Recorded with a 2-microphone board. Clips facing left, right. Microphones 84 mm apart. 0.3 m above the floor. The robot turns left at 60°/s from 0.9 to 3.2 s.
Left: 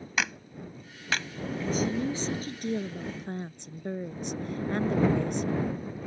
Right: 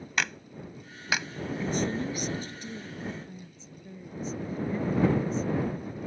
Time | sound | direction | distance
0.2 | a clap | 5° left (ahead or behind) | ?
1.6 | a woman speaking | 170° right | ?